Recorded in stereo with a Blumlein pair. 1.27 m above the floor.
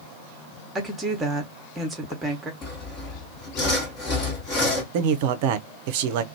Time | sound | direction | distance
0.8 | a woman speaking | 10° right | 1.0 m
2.6 | sawing | 30° left | 1.2 m
4.9 | a man speaking | 50° right | 0.5 m